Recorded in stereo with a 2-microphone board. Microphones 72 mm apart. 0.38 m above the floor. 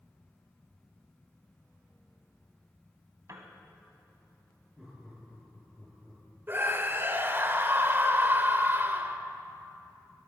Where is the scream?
30° right (ahead or behind), 1.3 m.